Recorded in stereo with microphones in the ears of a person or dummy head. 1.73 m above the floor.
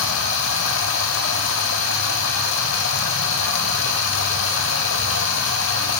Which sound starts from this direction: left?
Running water, at 0.0 s.